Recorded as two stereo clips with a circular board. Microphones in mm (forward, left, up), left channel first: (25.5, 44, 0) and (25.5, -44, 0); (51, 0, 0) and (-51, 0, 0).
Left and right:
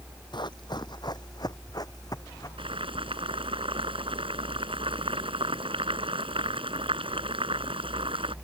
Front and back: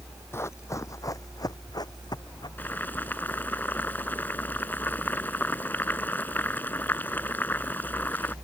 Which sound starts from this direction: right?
Boiling, at 2.6 s.